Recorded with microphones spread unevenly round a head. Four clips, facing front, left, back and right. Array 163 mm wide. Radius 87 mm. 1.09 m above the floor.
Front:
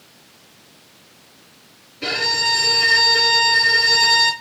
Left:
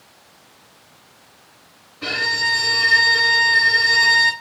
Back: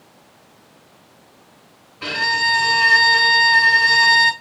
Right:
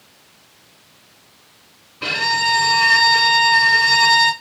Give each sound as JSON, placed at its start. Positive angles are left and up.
{"t": 2.0, "sound": "a violin", "azimuth_deg": -135, "distance_m": 2.0}